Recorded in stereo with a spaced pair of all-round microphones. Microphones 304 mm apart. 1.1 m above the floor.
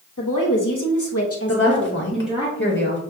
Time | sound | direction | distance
0.2 | a woman speaking | 75° left (ahead or behind) | 1.5 m
1.5 | a woman speaking | 40° left (ahead or behind) | 1.6 m